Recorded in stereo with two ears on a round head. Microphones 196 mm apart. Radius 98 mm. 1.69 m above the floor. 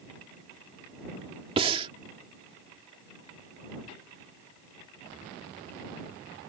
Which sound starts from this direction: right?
Breathing, at 1.6 s.